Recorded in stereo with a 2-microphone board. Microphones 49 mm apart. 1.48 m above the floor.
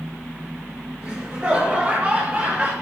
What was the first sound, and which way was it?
Laughter, 15° right (ahead or behind).